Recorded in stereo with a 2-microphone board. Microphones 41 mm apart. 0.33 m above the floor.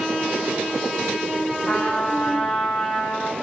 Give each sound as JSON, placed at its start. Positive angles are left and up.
{"t": 1.7, "sound": "a trumpet", "side_deg": -5, "distance_m": 5.0}